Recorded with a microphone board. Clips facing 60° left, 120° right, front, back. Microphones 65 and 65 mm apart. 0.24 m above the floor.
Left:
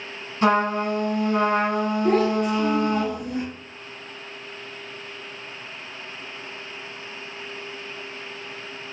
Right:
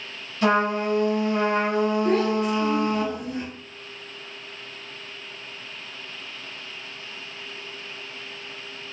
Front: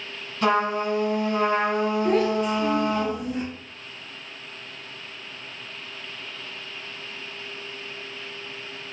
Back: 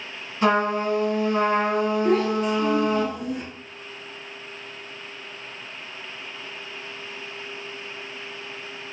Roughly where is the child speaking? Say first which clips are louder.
Left 2 dB, even; left.